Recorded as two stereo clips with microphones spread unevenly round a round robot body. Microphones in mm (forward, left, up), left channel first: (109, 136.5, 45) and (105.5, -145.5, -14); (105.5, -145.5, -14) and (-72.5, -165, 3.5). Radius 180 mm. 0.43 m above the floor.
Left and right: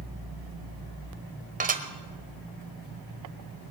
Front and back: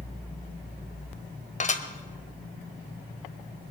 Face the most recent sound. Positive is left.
turn(degrees=-35)